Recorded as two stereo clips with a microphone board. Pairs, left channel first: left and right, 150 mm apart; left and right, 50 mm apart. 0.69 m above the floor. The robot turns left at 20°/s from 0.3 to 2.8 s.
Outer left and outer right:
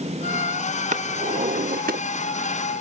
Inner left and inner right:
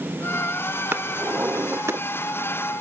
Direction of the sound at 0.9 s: 55° right (ahead or behind).